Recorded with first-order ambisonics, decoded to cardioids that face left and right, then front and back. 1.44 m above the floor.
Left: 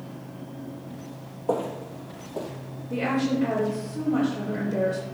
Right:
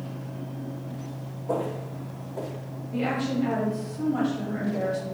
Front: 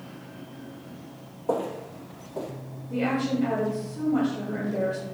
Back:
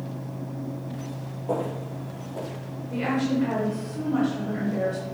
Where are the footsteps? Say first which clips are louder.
Left 2 dB, front 1 dB; 70° left, 2 m; by 2.5 s 90° left, 2.5 m.